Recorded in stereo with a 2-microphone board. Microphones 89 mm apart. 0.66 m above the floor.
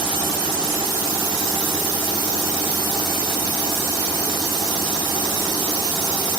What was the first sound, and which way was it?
Only background noise.